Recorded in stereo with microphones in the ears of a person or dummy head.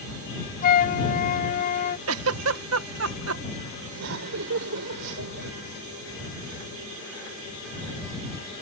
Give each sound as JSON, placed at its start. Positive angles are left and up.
{"t": 0.6, "sound": "a flute", "side_deg": 50}
{"t": 2.1, "sound": "a giggle", "side_deg": -75}
{"t": 3.9, "sound": "laughter", "side_deg": -70}